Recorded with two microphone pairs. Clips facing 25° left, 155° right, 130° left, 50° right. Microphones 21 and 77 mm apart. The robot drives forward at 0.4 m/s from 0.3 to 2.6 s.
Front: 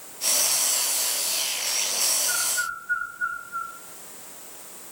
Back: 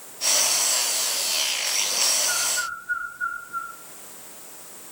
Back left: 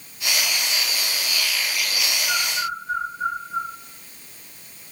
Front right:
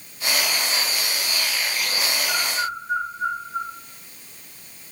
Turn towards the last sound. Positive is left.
turn(degrees=150)